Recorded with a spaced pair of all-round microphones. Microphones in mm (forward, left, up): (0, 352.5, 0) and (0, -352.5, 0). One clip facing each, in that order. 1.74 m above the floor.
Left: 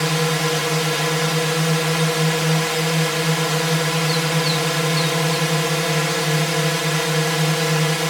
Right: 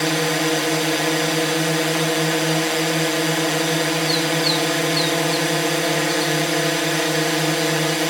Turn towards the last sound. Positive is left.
turn(degrees=40)  # may be behind; listen again after turning